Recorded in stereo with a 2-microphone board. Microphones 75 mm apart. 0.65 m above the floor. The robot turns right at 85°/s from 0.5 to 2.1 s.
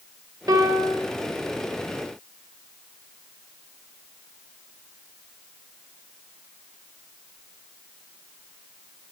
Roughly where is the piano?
Behind right.